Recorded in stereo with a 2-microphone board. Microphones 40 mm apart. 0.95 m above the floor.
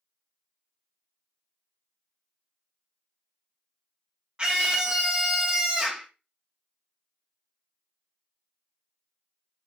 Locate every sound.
4.4 s a scream: 25° right (ahead or behind), 0.8 m